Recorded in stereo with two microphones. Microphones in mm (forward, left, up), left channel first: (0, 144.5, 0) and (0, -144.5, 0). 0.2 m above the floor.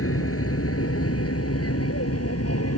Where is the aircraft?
50° left (ahead or behind); by 2.8 s 55° left (ahead or behind).